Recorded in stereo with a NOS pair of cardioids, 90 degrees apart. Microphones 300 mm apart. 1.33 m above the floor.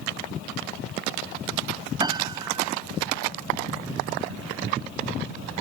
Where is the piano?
15° right.